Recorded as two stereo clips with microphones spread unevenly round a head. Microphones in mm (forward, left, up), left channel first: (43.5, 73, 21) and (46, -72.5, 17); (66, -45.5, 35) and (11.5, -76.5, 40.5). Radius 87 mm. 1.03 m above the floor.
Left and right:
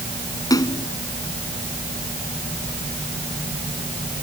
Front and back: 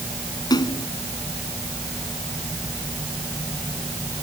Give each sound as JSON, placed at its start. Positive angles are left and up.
{"t": 0.5, "sound": "a splash", "azimuth_deg": 25}